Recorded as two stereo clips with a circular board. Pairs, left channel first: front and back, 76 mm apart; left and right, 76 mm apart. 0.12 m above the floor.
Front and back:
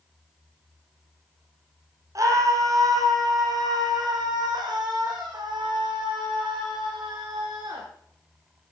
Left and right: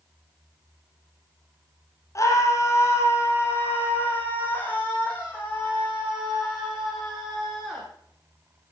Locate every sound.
2.1 s a scream: 135° left, 5.5 m; by 7.8 s 165° left, 11.5 m